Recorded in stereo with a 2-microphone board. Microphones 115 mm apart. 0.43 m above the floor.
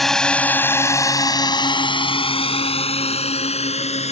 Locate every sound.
0.0 s a drone: centre (ahead or behind); by 4.1 s 70° left (ahead or behind)